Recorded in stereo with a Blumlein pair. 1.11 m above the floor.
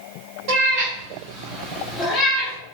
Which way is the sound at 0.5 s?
45° right.